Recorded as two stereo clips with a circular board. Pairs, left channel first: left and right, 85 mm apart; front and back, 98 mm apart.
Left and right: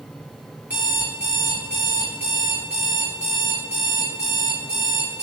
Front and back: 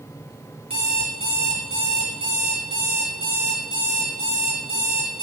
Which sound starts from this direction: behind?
An alarm clock, at 0.7 s.